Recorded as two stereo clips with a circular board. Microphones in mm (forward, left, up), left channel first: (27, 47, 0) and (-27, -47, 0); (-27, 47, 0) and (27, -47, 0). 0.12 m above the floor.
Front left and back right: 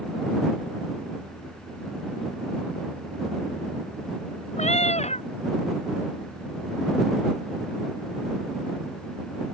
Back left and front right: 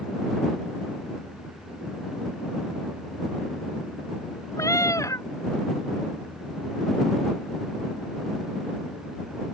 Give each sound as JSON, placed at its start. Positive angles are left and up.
{"t": 4.6, "sound": "a cat meowing", "azimuth_deg": 60}